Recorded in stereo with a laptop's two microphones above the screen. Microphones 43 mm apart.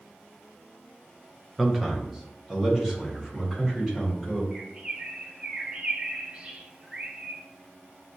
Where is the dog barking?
No dog barking in this recording.